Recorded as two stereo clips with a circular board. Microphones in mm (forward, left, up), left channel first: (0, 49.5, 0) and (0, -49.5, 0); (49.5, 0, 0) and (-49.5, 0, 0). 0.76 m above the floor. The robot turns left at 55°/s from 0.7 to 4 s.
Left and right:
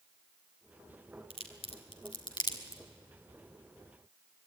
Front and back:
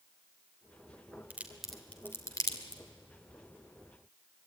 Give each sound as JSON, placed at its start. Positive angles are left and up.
{"t": 1.3, "sound": "a crack", "azimuth_deg": 110, "distance_m": 2.5}